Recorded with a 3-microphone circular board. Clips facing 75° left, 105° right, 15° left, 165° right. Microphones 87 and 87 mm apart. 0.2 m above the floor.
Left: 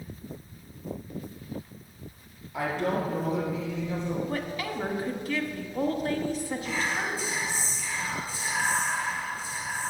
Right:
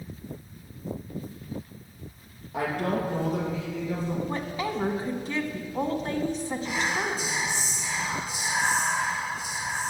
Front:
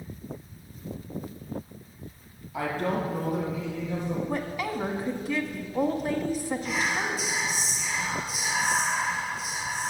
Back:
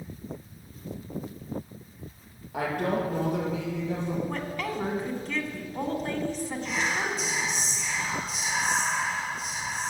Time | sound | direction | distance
2.5 | a woman speaking | 140° right | 4 m
4.3 | a woman speaking | 65° right | 1.2 m
6.7 | whispering | 65° right | 1.4 m